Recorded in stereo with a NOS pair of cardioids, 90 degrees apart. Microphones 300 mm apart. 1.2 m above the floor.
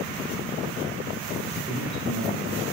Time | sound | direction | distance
1.7 | a man speaking | 20° left | 1.1 m